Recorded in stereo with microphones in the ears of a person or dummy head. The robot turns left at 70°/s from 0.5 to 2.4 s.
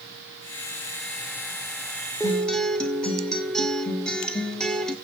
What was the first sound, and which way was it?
A guitar, 15° left (ahead or behind).